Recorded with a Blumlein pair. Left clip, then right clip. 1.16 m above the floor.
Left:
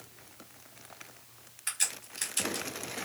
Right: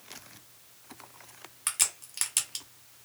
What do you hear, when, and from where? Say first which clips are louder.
1.7 s a crack: right 3 dB; 40° right, 1.4 m